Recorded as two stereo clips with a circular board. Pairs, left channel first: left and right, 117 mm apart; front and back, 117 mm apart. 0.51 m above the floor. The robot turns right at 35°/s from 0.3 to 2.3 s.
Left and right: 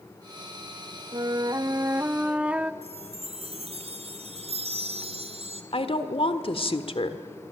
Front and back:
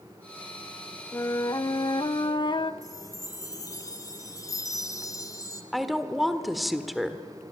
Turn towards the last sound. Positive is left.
turn(degrees=90)